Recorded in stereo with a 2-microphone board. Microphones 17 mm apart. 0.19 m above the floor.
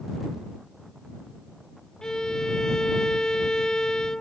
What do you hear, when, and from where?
2.0 s a violin: 40° left (ahead or behind)